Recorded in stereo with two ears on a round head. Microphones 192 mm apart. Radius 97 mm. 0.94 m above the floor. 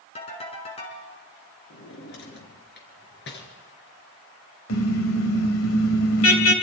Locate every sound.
0.1 s a ringtone: 30° left (ahead or behind), 5 m
1.7 s a drawer: 55° left (ahead or behind), 3.5 m
4.7 s a car horn: 65° left (ahead or behind), 2.5 m